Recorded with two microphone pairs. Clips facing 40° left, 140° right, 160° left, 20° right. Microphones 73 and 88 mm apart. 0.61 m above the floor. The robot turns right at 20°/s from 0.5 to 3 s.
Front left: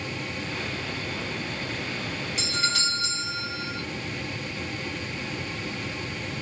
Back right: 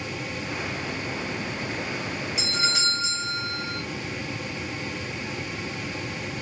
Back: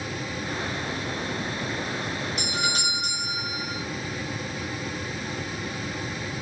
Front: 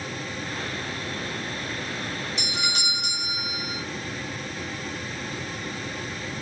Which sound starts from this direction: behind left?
A doorbell, at 2.4 s.